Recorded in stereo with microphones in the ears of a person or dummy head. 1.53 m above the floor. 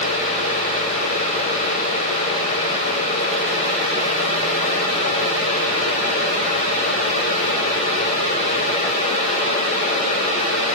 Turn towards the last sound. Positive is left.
No sound to turn to.